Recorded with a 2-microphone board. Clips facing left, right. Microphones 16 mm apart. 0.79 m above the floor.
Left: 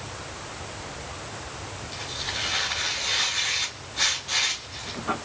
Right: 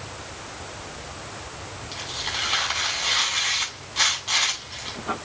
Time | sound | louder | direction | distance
1.9 | tearing paper | right 2 dB | 65° right (ahead or behind) | 6 m